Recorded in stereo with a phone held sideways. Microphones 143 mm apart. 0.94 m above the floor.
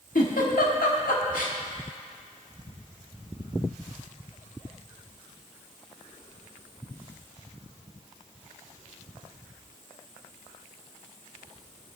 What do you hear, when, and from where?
0.1 s a giggle: 80° left, 1.6 m